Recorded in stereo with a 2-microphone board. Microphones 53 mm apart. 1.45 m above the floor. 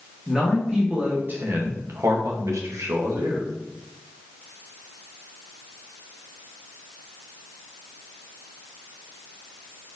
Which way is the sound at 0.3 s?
15° right (ahead or behind).